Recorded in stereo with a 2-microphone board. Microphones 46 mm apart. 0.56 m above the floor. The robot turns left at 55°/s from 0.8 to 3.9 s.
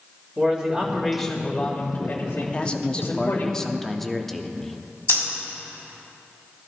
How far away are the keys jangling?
I don't hear keys jangling.